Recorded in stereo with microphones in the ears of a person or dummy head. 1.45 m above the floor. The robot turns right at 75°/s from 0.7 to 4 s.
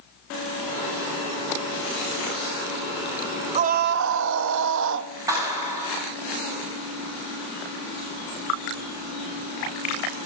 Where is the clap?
20° right (ahead or behind), 8.5 m.